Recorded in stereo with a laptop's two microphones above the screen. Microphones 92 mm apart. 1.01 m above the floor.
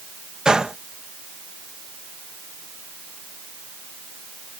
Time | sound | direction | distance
0.5 | a gunshot | 10° right (ahead or behind) | ?